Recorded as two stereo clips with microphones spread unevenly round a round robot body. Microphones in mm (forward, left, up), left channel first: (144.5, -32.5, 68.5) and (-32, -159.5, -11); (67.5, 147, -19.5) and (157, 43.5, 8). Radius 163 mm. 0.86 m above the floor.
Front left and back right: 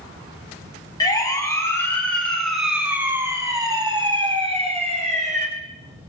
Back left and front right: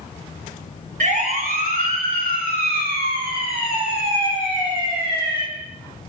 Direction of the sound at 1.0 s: 35° right.